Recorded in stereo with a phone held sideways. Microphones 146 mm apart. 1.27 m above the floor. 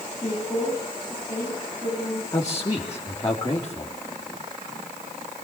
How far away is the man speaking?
About 3.5 m.